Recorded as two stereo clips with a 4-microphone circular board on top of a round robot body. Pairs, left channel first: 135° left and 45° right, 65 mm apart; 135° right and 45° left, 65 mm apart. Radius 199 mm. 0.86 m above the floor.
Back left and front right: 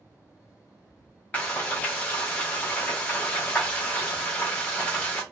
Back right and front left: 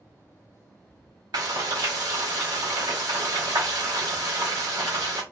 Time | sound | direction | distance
1.3 | frying | 70° left | 0.6 m